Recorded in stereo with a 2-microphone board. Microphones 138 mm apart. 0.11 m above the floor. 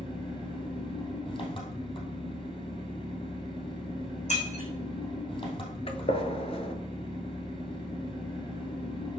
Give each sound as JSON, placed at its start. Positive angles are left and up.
{"t": 0.0, "sound": "an engine running", "side_deg": 40, "distance_m": 2.5}
{"t": 4.3, "sound": "breaking glass", "side_deg": 60, "distance_m": 4.5}
{"t": 5.9, "sound": "a gunshot", "side_deg": 45, "distance_m": 0.7}